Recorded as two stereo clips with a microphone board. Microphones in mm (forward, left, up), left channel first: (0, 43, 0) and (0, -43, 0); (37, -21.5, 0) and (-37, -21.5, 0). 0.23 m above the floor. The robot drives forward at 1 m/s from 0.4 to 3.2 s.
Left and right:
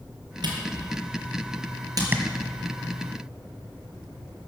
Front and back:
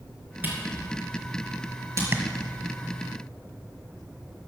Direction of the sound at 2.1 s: 145° right.